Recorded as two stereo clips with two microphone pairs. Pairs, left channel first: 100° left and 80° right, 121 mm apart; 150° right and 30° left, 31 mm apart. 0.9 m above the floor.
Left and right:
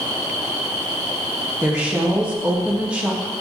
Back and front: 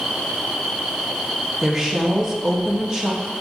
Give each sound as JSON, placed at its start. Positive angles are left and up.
{"t": 1.6, "sound": "a woman speaking", "azimuth_deg": -30, "distance_m": 0.5}